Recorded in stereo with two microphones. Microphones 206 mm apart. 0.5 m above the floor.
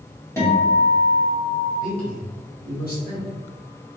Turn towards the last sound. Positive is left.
turn(degrees=50)  # may be behind; listen again after turning